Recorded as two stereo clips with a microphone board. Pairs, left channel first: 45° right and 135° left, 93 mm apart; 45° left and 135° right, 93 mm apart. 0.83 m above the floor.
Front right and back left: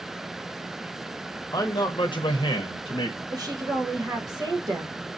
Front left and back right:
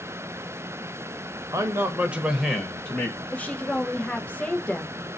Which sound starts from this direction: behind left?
A woman speaking, at 3.3 s.